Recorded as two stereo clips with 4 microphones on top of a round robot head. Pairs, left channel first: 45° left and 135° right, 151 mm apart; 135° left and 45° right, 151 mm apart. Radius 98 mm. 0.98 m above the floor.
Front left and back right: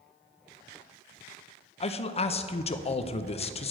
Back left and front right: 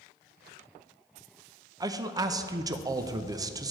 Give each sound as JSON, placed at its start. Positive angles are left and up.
{"t": 1.8, "sound": "a man speaking", "azimuth_deg": 15, "distance_m": 0.6}